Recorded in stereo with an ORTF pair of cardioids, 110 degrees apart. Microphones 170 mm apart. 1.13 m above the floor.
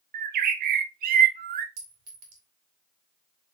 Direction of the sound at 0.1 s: 55° right.